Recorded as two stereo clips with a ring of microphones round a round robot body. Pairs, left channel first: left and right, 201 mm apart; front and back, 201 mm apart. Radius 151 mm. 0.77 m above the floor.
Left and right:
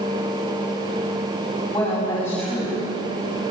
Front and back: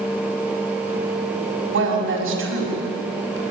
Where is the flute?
No flute in this recording.